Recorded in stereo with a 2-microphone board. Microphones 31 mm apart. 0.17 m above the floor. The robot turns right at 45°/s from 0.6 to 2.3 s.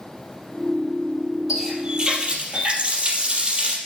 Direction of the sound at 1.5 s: 175° right.